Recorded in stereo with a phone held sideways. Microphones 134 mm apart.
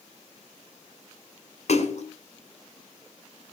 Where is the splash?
60° left (ahead or behind), 2.5 m.